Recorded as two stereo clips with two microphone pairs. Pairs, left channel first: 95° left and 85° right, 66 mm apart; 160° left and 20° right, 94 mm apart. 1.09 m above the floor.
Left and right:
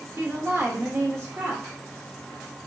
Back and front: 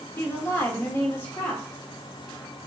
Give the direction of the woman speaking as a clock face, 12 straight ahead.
5 o'clock.